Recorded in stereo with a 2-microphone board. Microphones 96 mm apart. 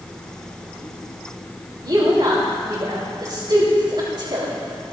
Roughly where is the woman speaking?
Right.